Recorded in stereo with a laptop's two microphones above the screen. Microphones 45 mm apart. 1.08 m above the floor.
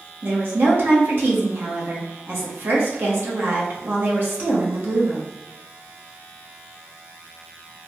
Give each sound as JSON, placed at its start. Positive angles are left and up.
{"t": 0.2, "sound": "a woman speaking", "side_deg": -50, "distance_m": 0.8}